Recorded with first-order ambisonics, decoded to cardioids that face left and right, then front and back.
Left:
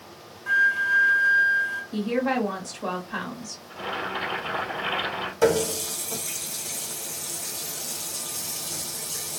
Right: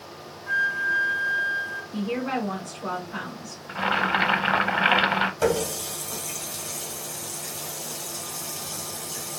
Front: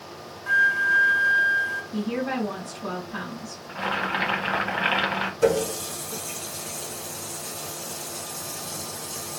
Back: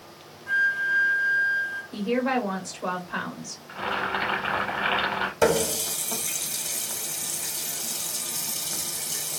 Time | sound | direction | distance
0.5 | a flute | 35° left | 0.8 m
1.9 | a woman speaking | 140° left | 1.6 m
3.7 | boiling | 80° right | 0.6 m
5.4 | a running tap | 170° left | 1.0 m